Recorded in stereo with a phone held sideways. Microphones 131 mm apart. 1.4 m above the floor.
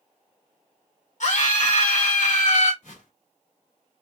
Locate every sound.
1.2 s a scream: 70° left (ahead or behind), 2 m
2.8 s a whoosh: 70° left (ahead or behind), 3 m